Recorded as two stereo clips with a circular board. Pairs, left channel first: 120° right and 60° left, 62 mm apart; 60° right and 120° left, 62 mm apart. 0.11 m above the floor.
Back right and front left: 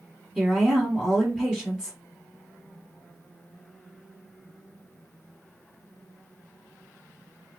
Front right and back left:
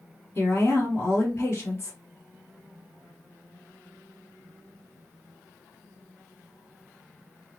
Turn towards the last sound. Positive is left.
turn(degrees=-15)